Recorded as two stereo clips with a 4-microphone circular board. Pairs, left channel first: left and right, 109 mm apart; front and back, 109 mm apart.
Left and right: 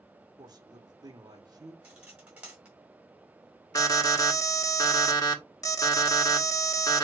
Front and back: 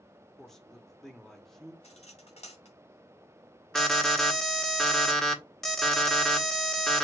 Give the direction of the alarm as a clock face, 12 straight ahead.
9 o'clock.